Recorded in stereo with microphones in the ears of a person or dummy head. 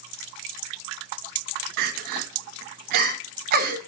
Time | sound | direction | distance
1.8 | crying | 50° right (ahead or behind) | 1.1 m